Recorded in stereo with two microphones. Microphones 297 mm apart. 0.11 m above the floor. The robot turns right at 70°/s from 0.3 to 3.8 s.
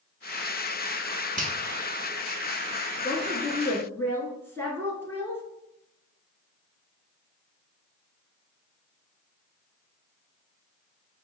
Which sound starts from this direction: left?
A woman speaking, at 3.0 s.